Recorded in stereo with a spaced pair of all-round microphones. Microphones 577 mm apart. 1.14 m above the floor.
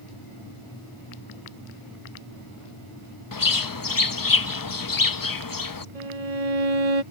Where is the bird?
40° left (ahead or behind).